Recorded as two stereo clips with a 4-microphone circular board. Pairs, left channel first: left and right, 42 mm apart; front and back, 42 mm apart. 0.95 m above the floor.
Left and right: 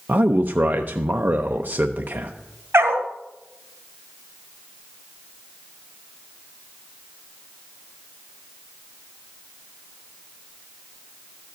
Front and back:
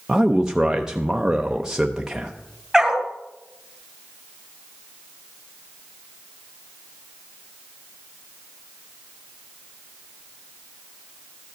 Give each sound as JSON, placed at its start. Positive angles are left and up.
{"t": 0.1, "sound": "a man speaking", "azimuth_deg": -105, "distance_m": 0.6}
{"t": 2.7, "sound": "a dog barking", "azimuth_deg": -95, "distance_m": 1.8}